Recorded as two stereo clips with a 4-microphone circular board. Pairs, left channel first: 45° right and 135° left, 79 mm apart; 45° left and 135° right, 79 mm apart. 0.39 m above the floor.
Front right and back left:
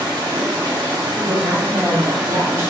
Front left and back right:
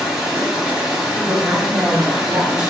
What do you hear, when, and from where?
0.0 s running water: 140° left, 1.0 m
1.1 s a woman speaking: 150° left, 0.9 m